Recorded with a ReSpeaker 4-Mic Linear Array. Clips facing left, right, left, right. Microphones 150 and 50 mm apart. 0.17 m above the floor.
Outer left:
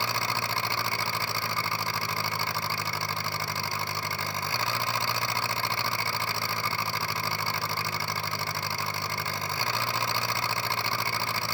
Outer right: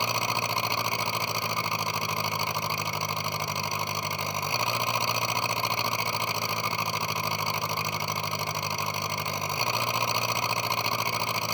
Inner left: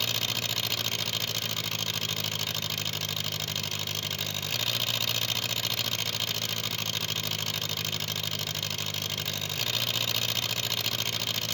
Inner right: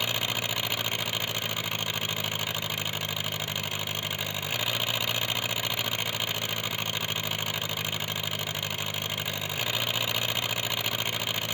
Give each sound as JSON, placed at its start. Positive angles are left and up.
{"t": 0.0, "sound": "an engine running", "side_deg": -20}